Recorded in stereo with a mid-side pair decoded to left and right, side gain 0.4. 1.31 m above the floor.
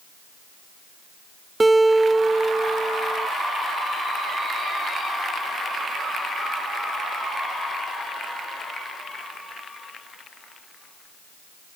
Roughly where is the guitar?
Ahead.